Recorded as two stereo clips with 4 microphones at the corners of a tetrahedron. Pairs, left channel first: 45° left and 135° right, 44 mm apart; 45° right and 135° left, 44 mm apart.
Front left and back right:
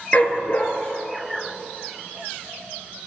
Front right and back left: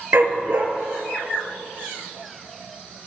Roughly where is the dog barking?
Left.